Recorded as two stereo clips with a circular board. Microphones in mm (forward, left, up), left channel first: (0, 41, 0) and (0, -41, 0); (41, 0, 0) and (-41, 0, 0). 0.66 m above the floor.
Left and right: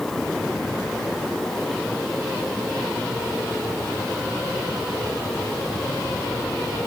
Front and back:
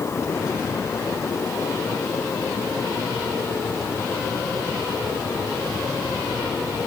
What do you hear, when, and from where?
Only background noise.